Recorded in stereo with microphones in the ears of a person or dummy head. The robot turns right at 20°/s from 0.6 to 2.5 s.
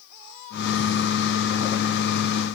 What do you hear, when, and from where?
Only background noise.